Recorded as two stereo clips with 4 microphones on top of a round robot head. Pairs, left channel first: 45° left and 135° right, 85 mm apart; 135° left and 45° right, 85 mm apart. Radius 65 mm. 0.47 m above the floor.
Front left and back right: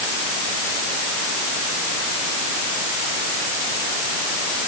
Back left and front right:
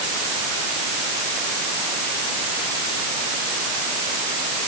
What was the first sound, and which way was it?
Only background noise.